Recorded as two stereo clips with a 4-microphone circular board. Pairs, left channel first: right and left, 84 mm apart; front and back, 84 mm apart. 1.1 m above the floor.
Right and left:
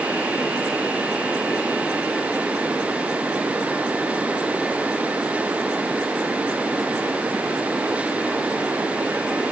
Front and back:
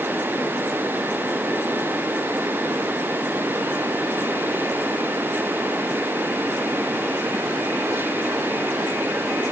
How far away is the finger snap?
No finger snap in this recording.